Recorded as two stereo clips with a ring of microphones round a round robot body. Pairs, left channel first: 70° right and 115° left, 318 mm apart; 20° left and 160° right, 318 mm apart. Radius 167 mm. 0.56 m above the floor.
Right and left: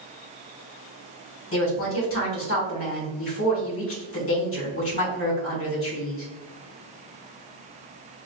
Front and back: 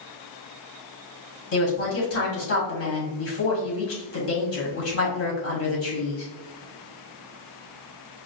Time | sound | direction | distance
1.5 | a woman speaking | 20° right | 2 m